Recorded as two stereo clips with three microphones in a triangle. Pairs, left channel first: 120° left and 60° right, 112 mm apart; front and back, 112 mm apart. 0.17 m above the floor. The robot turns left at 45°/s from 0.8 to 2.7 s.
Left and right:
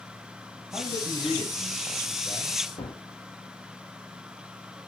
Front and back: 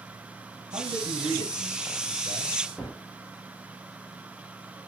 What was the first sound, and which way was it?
A man speaking, 175° right.